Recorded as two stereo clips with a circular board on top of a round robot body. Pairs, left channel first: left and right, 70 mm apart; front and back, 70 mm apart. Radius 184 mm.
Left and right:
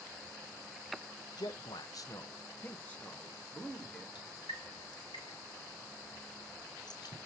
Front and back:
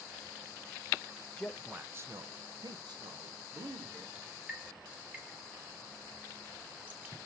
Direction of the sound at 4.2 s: 110° left.